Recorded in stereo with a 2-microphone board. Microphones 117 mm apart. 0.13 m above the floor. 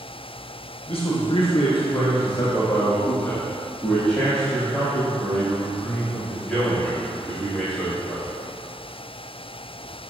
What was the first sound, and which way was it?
A man speaking, 50° left (ahead or behind).